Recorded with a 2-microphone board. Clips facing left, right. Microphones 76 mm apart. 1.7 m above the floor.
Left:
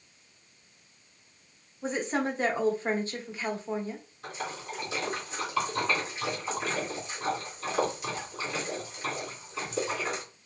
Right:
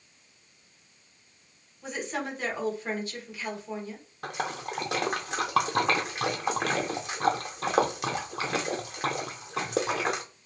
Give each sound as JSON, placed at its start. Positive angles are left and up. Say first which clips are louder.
{"t": 1.8, "sound": "a woman speaking", "louder": "left 4 dB", "side_deg": 35, "distance_m": 0.9}
{"t": 4.2, "sound": "a splash", "louder": "right 5 dB", "side_deg": -70, "distance_m": 0.6}